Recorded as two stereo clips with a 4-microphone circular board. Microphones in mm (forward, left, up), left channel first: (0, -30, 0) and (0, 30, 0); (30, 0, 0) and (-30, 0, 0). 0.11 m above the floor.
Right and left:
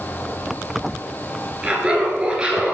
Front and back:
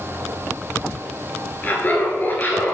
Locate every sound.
1.6 s laughter: 30° left, 1.9 m